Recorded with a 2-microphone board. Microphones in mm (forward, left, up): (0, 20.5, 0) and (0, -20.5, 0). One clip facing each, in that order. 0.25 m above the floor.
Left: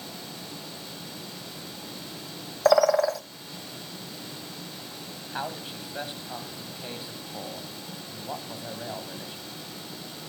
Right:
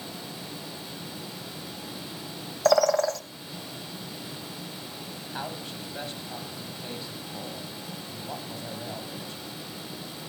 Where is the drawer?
I don't hear a drawer.